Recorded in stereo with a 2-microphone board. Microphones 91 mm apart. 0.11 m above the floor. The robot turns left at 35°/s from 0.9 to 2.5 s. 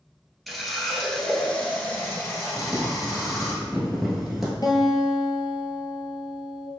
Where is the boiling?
5° right (ahead or behind), 1.2 m.